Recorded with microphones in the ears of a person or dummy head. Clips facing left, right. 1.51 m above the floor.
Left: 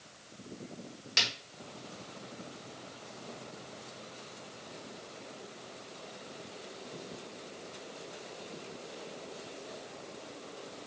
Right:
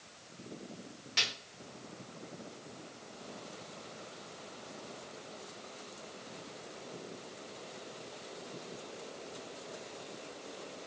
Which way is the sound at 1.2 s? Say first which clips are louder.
Left 3 dB; 65° left (ahead or behind).